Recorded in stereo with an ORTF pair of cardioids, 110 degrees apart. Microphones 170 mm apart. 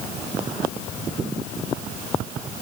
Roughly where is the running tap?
I don't hear a running tap.